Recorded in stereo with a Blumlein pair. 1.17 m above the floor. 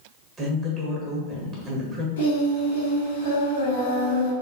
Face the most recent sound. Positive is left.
turn(degrees=65)